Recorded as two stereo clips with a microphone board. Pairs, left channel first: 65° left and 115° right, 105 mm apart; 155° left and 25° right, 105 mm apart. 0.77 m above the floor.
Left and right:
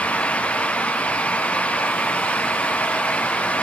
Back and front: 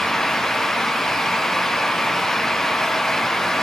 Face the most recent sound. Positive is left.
No sound to turn to.